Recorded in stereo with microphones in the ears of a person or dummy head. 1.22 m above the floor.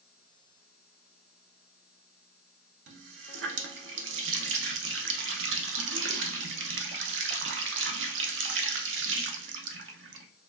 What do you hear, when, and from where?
2.9 s a running tap: 75° right (ahead or behind), 0.6 m